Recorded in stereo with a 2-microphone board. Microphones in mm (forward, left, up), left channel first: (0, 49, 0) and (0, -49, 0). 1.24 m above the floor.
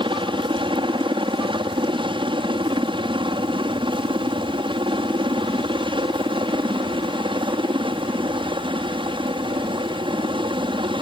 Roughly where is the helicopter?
Right.